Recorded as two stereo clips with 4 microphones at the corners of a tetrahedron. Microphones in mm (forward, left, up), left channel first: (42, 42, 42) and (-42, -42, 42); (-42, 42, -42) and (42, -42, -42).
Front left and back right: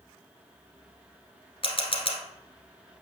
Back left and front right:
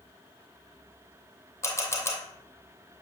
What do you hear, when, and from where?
1.6 s a camera shutter: 75° left, 1.3 m